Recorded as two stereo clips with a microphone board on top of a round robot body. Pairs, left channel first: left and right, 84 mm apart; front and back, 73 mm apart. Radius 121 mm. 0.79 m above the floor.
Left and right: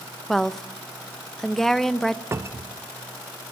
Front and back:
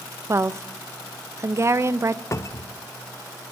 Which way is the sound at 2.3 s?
35° right.